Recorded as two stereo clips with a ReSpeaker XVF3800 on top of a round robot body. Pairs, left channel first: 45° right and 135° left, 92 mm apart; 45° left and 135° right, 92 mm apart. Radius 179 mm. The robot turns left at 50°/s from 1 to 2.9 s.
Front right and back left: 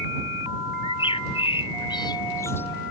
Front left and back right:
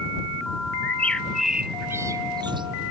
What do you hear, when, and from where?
0.8 s a bird: 30° right; by 2.7 s 115° right